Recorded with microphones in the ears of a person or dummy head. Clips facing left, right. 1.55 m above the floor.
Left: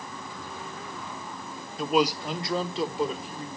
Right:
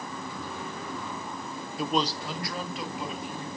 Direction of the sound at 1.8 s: 5° right (ahead or behind).